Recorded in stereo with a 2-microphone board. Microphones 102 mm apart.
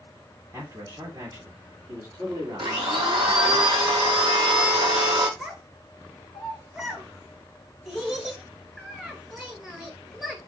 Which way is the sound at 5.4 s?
5° right (ahead or behind).